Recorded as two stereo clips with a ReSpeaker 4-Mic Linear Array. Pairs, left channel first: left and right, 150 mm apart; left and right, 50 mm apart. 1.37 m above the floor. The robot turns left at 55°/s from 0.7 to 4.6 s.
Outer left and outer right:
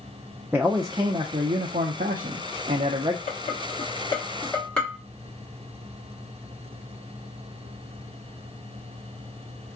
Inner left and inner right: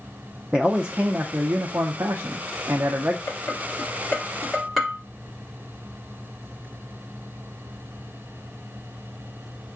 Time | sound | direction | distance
0.5 | a man speaking | 15° right | 0.5 m
3.3 | dishes clattering | 70° left (ahead or behind) | 1.7 m